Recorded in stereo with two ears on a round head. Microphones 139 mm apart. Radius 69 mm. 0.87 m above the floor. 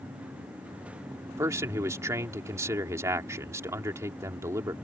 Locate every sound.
1.3 s a man speaking: 20° right (ahead or behind)